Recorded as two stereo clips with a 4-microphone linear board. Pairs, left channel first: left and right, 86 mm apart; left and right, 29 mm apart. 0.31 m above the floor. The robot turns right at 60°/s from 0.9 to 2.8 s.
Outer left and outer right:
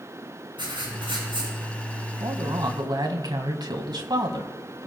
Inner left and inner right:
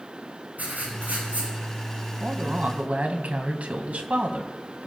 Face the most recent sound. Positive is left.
turn(degrees=-70)